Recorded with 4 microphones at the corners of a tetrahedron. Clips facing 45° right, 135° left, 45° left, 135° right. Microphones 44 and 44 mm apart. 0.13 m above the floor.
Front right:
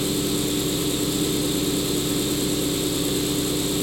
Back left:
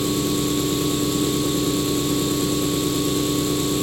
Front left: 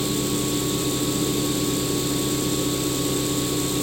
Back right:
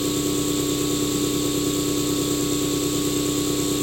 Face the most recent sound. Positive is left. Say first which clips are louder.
# back left 2 dB, back right 1 dB
turn(degrees=175)